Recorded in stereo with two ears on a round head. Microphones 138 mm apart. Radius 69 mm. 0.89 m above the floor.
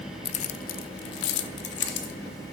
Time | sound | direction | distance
0.2 | keys jangling | 40° left (ahead or behind) | 0.5 m